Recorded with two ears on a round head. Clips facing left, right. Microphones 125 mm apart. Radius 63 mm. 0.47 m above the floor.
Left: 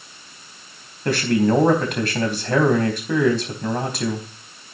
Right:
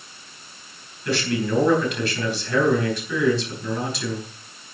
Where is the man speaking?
45° left (ahead or behind), 3.5 m.